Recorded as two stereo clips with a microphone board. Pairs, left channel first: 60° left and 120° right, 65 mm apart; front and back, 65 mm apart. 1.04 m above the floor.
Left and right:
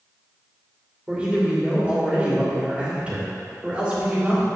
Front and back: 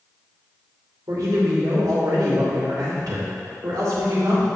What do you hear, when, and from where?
1.1 s a man speaking: 170° left, 2.5 m